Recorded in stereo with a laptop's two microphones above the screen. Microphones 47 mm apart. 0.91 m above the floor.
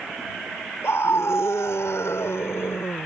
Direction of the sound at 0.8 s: 70° left (ahead or behind).